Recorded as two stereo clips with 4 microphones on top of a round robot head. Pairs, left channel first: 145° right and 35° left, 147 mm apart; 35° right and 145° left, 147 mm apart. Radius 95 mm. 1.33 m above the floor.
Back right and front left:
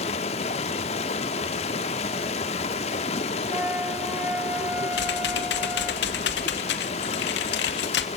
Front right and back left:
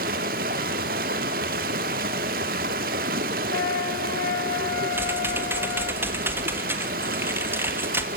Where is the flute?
45° right, 1.0 m.